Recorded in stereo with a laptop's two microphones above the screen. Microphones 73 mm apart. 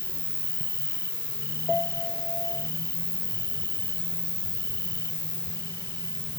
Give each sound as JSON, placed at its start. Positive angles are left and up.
{"t": 0.0, "sound": "an insect", "side_deg": -80}
{"t": 1.7, "sound": "a piano", "side_deg": 0}